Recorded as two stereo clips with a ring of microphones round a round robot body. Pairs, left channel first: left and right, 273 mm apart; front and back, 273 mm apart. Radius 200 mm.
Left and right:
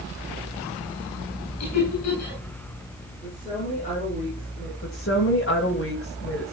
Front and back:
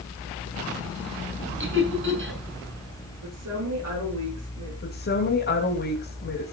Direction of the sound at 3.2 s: 160° left.